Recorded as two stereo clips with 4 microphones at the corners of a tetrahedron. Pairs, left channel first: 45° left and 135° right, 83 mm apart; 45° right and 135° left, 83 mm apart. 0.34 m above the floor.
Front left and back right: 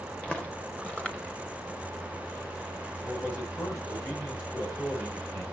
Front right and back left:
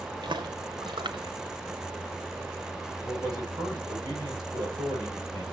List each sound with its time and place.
0.2 s footsteps: 120° left, 1.6 m
3.0 s a man speaking: 100° left, 9.5 m